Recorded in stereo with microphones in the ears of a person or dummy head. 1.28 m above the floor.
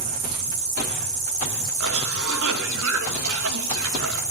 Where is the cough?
55° right (ahead or behind), 2 m.